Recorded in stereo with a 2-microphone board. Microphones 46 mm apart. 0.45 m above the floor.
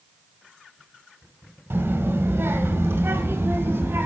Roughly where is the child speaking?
Right.